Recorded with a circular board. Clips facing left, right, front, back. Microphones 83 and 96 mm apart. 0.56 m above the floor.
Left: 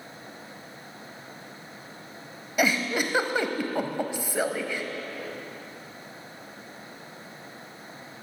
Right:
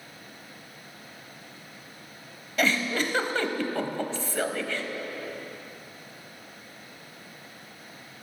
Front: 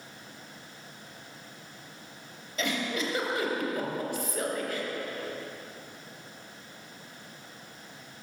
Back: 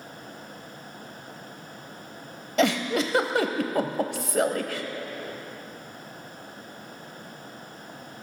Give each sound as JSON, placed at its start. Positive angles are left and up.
{"t": 2.6, "sound": "a giggle", "azimuth_deg": 165, "distance_m": 0.7}